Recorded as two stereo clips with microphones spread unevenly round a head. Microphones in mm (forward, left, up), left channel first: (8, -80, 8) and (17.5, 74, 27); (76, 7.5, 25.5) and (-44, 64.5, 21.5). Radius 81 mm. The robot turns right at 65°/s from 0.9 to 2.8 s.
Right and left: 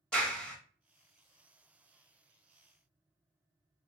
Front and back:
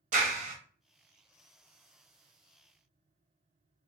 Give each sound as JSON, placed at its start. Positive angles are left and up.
{"t": 0.1, "sound": "a clap", "azimuth_deg": -175, "distance_m": 1.2}